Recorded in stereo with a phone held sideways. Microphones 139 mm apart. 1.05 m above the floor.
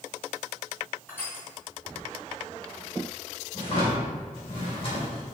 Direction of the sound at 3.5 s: 45° left (ahead or behind).